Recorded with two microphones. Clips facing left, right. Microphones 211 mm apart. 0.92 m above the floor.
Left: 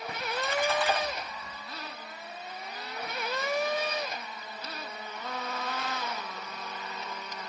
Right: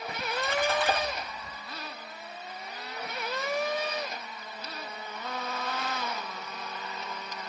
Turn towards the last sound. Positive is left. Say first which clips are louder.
# right 1 dB
turn(degrees=-60)  # may be behind; listen again after turning